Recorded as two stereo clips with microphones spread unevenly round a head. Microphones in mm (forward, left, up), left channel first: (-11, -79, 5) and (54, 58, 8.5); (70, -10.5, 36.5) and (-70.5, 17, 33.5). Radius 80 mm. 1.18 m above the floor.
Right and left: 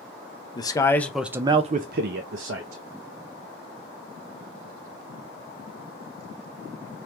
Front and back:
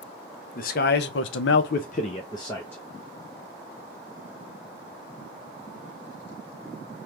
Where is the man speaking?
50° right, 0.8 m; by 2.8 s 65° left, 0.9 m.